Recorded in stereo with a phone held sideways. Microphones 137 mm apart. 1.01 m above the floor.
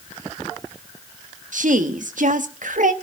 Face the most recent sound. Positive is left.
turn(degrees=-75)  # may be behind; listen again after turning